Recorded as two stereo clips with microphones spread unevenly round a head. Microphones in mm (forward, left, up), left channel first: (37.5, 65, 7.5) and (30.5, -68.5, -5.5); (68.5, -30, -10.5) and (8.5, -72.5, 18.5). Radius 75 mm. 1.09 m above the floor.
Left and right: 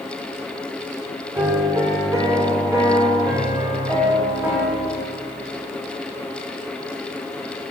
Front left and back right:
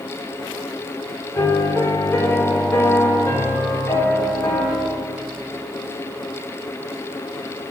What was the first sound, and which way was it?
A piano, 25° right.